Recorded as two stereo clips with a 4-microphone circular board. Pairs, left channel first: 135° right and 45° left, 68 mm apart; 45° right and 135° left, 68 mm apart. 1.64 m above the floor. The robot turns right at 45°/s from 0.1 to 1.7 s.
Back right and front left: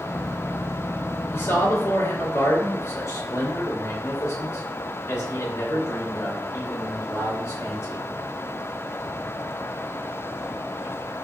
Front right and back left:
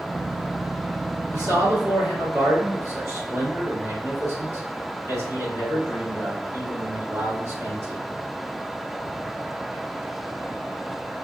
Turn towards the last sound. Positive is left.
turn(degrees=180)